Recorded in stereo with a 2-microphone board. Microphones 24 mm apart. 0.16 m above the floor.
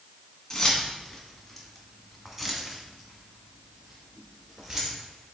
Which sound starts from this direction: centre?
Keys jangling, at 0.5 s.